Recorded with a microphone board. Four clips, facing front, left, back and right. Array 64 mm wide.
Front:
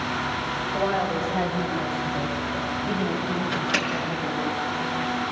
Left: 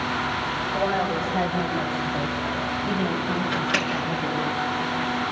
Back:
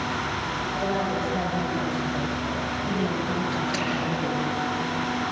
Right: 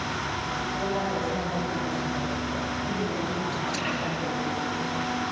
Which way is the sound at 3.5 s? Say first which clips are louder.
Left 5 dB, front 1 dB; 65° left.